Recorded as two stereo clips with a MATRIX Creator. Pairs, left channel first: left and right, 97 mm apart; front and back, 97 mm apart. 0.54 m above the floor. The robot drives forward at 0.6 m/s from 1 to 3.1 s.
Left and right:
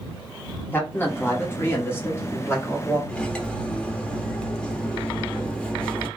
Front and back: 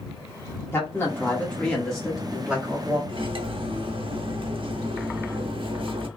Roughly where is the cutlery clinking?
Behind.